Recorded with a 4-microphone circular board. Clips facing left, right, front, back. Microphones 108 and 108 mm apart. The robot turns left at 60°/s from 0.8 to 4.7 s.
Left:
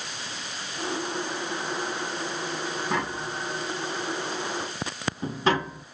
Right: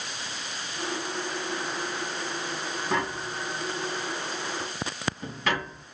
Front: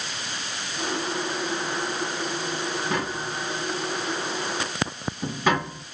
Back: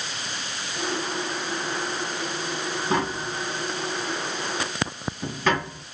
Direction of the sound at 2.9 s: Straight behind.